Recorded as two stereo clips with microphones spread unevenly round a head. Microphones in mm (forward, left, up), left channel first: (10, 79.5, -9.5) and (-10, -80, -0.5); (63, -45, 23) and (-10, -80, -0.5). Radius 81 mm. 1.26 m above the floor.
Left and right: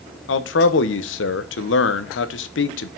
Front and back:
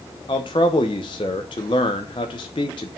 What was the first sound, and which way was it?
A man speaking, 85° left.